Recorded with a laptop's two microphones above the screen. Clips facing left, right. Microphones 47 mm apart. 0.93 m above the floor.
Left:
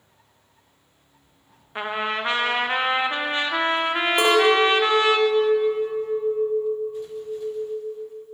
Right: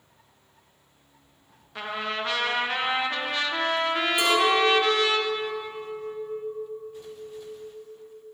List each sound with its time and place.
1.8 s a trumpet: 25° left (ahead or behind), 0.5 m
4.2 s a clink: 55° left (ahead or behind), 2 m